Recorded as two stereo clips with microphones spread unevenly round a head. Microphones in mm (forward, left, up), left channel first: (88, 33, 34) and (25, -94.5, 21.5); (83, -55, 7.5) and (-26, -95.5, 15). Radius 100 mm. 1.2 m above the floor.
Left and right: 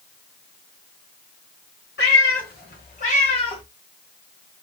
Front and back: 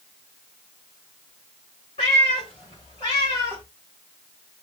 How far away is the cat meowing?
About 1.5 m.